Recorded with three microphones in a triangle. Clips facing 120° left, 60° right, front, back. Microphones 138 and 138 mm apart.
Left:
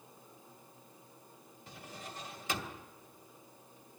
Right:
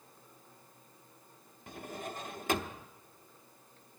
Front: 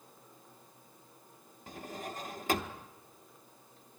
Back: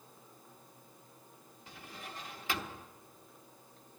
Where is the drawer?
40° right, 0.8 m.